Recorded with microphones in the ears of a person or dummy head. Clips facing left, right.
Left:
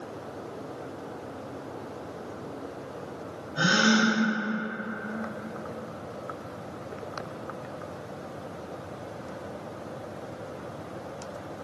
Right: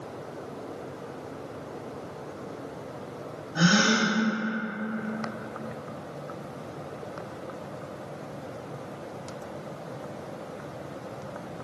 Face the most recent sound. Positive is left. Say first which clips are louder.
# even
turn(degrees=-75)  # may be behind; listen again after turning